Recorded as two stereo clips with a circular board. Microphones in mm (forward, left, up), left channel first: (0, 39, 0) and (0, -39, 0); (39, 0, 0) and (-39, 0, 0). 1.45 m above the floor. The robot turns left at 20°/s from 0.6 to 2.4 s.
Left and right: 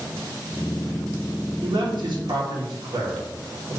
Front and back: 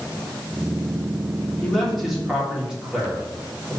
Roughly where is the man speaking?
Right.